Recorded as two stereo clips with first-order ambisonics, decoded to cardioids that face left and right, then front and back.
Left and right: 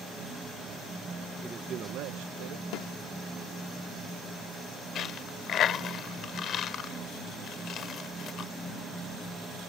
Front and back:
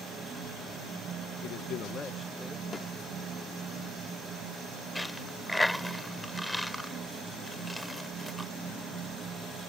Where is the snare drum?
75° left.